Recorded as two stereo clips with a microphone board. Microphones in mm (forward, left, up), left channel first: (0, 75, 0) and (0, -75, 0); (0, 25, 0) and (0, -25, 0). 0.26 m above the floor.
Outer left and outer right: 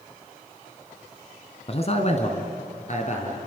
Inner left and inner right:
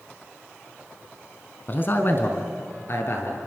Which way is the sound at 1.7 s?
40° left (ahead or behind).